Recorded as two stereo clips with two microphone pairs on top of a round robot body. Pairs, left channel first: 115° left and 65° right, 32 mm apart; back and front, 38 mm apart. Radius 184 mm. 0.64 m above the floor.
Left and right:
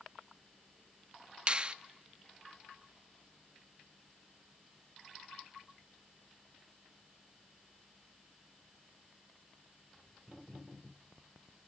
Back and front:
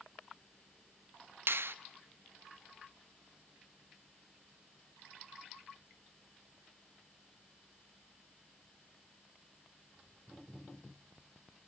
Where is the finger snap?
15° right, 0.7 m.